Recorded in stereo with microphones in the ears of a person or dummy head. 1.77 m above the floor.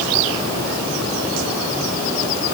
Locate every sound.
Only background noise.